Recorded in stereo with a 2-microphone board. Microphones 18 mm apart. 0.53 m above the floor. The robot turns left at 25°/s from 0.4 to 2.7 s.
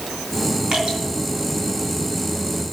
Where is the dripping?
75° right (ahead or behind), 3.5 m; by 1.0 s 80° right, 3.5 m.